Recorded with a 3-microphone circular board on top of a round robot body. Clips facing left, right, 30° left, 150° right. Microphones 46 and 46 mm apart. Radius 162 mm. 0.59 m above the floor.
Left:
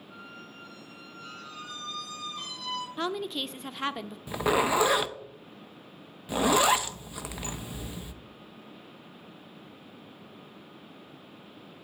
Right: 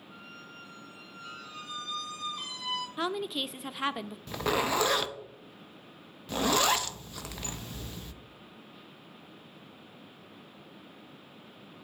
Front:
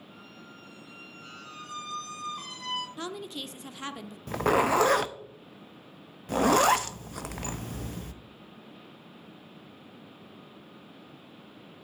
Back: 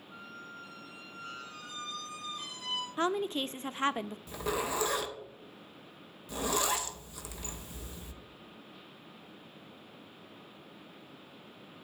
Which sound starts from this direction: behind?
A woman speaking, at 3.0 s.